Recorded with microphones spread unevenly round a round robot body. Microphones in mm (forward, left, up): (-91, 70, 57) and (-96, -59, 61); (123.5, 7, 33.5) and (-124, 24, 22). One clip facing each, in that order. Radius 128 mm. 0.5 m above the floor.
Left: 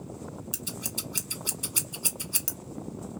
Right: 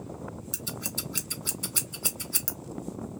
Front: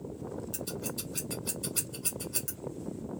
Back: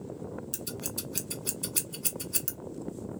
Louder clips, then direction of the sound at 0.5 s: Right 1 dB, front 1 dB; 155° left.